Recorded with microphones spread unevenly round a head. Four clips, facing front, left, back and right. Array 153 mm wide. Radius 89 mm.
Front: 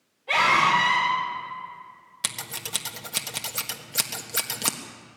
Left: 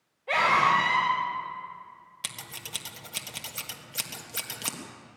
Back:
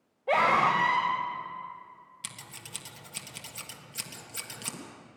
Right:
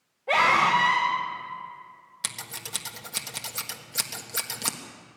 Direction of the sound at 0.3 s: 160° right.